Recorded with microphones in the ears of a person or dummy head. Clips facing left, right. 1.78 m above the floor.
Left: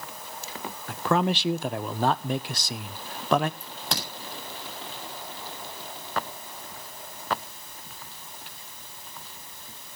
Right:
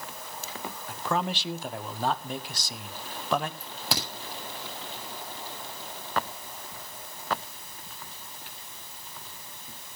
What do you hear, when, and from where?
0.9 s a man speaking: 55° left (ahead or behind), 0.6 m
3.6 s a crack: 5° left (ahead or behind), 7.5 m